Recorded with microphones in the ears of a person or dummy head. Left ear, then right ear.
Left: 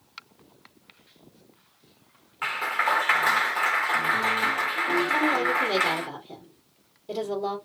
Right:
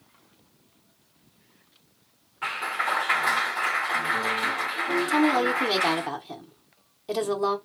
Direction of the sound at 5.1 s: 60° right (ahead or behind).